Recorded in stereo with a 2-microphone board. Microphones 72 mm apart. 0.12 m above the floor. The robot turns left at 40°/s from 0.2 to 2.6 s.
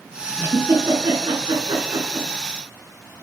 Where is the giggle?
35° right (ahead or behind), 4 m; by 2.3 s 65° right (ahead or behind), 4 m.